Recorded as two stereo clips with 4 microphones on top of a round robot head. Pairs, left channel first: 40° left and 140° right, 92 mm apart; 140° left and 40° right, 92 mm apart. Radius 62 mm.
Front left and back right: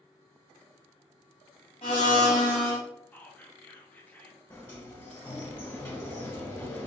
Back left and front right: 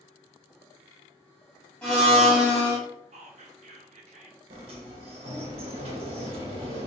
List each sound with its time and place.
1.8 s a blender: 70° left, 1.4 m
3.1 s whispering: 30° right, 0.6 m
4.5 s a sliding door: 25° right, 1.1 m